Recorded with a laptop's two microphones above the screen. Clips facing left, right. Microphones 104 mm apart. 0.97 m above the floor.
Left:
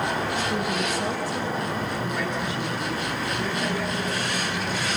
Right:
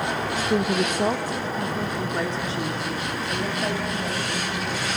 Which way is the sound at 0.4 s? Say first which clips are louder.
Right 3 dB; 35° right (ahead or behind).